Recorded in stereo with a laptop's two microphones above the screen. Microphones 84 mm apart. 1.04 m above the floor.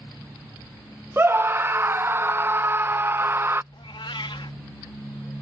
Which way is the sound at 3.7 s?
75° left (ahead or behind).